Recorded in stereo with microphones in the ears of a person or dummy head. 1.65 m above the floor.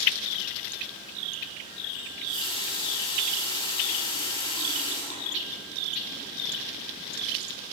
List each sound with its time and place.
2.0 s a running tap: 25° left (ahead or behind), 8 m